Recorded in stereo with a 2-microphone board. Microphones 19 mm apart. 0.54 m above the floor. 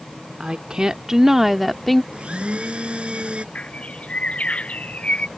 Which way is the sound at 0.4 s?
50° right (ahead or behind).